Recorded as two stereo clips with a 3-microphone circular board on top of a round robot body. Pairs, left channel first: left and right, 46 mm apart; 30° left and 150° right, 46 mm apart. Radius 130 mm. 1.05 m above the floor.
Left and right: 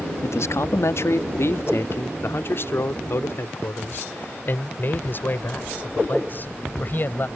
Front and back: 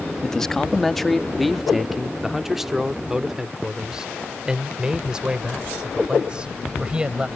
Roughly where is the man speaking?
Left.